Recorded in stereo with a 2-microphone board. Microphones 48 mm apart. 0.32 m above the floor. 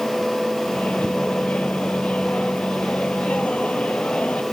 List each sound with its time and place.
0.7 s a microwave: 25° left (ahead or behind)